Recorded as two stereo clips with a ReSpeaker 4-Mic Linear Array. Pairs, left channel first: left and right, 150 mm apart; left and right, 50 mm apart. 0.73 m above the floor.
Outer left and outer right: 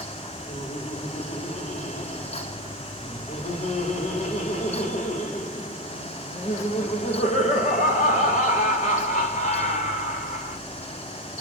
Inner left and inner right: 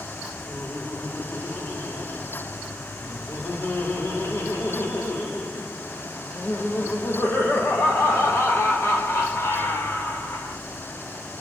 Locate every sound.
0.5 s laughter: 55° left (ahead or behind), 1.6 m